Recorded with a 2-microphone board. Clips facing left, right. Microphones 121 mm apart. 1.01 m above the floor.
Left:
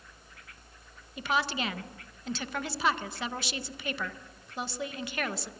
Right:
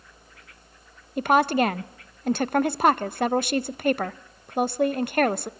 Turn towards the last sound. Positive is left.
turn(degrees=-55)  # may be behind; listen again after turning